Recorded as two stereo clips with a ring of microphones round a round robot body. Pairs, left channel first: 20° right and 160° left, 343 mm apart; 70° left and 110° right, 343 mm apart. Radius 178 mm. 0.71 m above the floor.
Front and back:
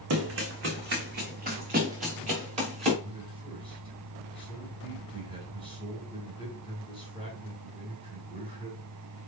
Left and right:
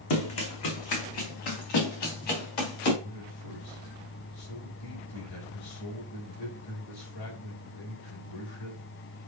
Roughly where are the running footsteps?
Left.